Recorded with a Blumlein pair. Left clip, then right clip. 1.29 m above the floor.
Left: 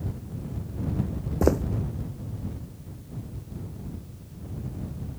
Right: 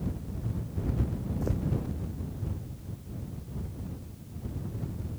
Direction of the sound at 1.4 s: 55° left.